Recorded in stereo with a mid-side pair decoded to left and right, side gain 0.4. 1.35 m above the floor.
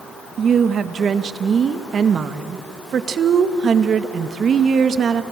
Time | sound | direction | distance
0.4 | a woman speaking | 55° right | 1.5 m